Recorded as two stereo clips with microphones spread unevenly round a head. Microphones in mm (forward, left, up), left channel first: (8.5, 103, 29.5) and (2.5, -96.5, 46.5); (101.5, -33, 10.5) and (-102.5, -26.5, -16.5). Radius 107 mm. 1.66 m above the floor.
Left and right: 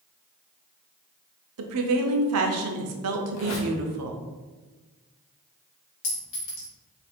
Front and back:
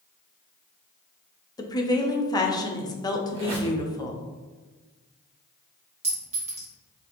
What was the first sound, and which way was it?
A woman speaking, 75° right.